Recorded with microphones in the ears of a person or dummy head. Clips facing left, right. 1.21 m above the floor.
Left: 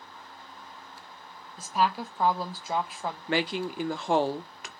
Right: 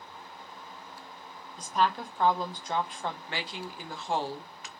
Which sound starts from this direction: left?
A woman speaking, at 3.3 s.